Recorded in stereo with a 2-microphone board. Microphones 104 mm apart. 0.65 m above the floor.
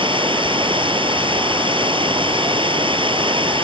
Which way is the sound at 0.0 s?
55° right (ahead or behind).